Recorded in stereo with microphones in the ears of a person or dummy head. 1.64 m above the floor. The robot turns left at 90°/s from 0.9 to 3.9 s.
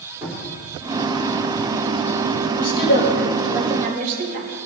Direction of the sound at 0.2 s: 15° right (ahead or behind).